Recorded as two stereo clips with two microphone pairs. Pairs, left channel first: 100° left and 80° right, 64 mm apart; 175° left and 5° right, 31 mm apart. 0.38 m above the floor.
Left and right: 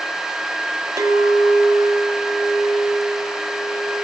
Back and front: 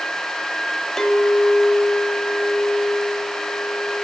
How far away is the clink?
About 1.1 m.